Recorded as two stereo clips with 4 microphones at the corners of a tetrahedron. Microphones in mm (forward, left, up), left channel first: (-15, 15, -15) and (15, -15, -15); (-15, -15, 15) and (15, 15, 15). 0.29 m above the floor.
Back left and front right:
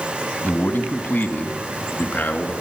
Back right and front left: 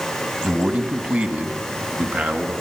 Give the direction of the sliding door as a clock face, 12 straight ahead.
No sliding door in this recording.